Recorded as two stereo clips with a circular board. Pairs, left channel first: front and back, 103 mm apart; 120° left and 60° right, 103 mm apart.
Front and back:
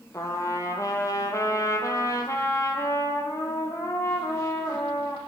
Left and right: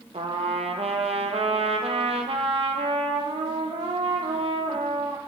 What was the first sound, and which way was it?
A trumpet, 60° right.